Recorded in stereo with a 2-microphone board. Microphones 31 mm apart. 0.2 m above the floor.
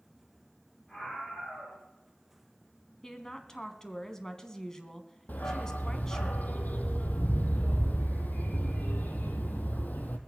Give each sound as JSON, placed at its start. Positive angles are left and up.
{"t": 0.9, "sound": "a scream", "side_deg": 5, "distance_m": 9.0}
{"t": 3.0, "sound": "a woman speaking", "side_deg": 15, "distance_m": 1.5}
{"t": 5.3, "sound": "a dog barking", "side_deg": 65, "distance_m": 1.6}